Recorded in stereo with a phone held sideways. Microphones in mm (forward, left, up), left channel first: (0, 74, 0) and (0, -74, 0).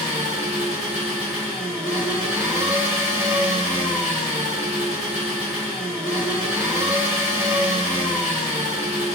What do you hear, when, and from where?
0.0 s an engine running: 10° right (ahead or behind), 1.5 m